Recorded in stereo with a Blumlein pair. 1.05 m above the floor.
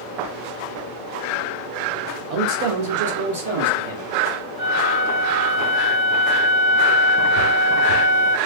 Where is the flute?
35° right, 1.2 m.